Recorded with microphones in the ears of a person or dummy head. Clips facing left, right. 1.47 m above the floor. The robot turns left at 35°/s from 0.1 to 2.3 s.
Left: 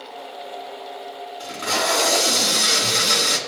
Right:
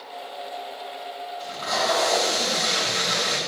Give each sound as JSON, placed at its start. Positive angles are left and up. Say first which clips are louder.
{"t": 1.4, "sound": "tape being pulled", "louder": "left 2 dB", "azimuth_deg": 140, "distance_m": 2.5}